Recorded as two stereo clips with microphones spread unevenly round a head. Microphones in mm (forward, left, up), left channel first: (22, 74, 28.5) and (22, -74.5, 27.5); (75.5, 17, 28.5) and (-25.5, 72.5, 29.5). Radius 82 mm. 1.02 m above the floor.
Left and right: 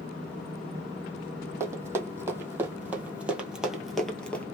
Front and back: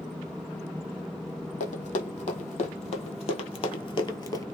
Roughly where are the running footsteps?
Ahead.